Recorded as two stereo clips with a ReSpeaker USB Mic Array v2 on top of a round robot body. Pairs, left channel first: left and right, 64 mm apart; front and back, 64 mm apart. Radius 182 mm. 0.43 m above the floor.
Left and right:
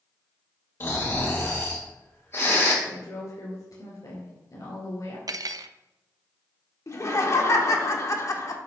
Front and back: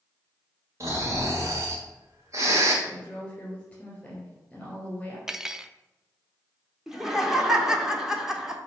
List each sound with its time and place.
0.8 s snoring: 140° left, 1.7 m
2.9 s a woman speaking: 75° left, 3 m
5.3 s cutlery clinking: 100° right, 0.6 m
6.9 s laughter: 100° left, 1.4 m